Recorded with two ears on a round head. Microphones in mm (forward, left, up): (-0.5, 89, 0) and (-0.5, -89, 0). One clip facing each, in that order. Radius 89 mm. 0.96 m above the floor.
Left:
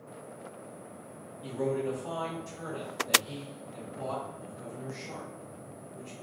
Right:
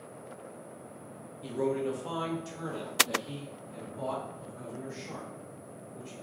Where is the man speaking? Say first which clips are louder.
Right 1 dB; 25° right (ahead or behind), 0.9 m; by 6.1 s 40° right (ahead or behind), 2.5 m.